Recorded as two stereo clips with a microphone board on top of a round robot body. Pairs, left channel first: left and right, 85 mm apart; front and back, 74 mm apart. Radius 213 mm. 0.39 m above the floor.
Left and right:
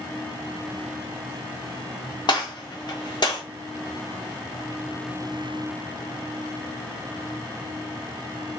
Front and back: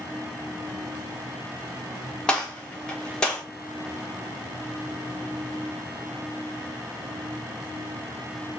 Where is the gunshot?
75° left, 1.2 m.